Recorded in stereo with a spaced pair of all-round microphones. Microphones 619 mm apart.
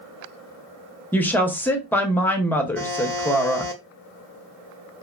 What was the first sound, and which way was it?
A woman speaking, 5° left (ahead or behind).